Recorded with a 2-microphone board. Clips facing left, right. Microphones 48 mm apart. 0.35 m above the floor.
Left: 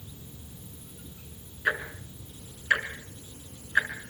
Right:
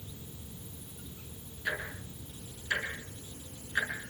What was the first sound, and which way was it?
Ticking, 50° left (ahead or behind).